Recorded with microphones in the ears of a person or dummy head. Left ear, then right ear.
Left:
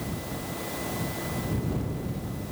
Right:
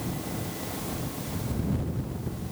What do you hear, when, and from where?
Only background noise.